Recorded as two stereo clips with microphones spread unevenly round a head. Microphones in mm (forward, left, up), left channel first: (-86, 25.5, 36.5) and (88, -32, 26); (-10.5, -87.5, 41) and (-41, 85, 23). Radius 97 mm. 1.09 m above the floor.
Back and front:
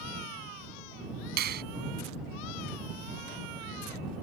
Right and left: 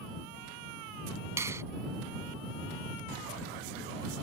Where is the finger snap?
20° left.